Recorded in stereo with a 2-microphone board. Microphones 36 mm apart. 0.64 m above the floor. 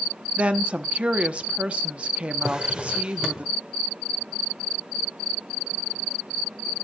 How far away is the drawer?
About 1.2 m.